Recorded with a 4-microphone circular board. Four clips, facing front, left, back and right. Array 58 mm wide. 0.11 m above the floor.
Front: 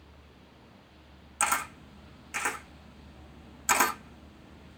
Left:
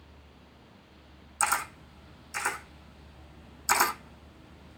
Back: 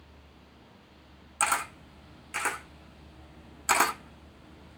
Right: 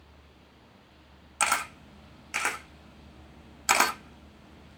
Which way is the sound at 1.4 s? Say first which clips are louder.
Right 1 dB, back 1 dB; 100° right.